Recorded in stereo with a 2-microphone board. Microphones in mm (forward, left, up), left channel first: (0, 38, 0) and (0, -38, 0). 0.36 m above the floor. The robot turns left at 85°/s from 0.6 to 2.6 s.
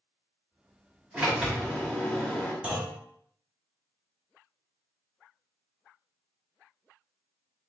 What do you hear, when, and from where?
1.1 s a sliding door: 20° right (ahead or behind), 1.3 m; by 2.5 s 20° left (ahead or behind), 1.3 m
2.6 s a clunk: 20° right (ahead or behind), 1.5 m